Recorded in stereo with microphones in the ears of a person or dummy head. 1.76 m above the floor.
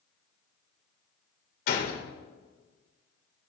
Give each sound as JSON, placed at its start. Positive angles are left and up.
{"t": 1.7, "sound": "a gunshot", "side_deg": 50, "distance_m": 1.8}